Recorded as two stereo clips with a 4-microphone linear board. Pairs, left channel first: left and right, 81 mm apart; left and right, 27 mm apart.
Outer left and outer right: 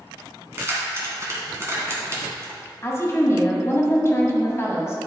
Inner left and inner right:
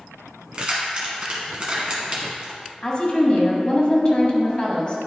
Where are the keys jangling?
35° right (ahead or behind), 1.5 m.